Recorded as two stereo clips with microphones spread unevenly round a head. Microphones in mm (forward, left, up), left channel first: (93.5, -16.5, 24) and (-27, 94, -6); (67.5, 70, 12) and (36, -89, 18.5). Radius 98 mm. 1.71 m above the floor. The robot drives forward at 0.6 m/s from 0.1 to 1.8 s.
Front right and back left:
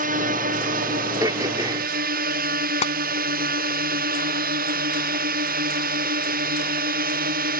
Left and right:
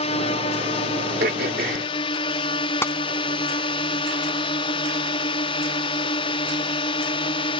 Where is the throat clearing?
145° right; by 1.9 s 150° right.